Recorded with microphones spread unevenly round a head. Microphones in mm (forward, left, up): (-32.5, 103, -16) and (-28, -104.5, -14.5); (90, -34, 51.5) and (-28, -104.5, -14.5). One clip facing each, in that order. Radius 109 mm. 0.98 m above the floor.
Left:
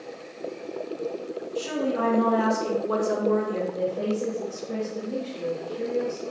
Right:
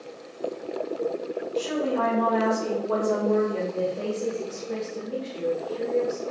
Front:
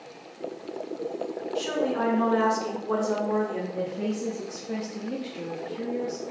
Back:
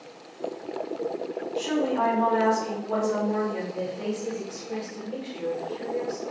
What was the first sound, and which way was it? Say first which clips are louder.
A woman speaking: even, back 2 dB; 30° left.